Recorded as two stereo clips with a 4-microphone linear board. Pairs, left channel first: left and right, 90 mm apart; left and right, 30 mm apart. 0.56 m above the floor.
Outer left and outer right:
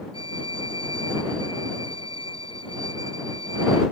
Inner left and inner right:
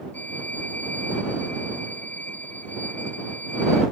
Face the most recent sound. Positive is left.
turn(degrees=70)  # may be behind; listen again after turning